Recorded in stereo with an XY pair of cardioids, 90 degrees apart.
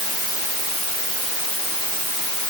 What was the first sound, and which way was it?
Only background noise.